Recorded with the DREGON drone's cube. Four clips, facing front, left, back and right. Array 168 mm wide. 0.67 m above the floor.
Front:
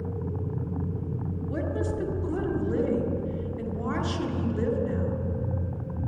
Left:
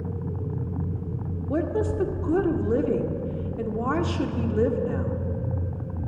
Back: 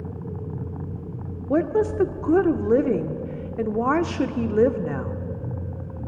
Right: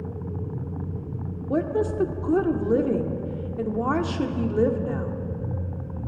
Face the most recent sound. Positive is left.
turn(degrees=-165)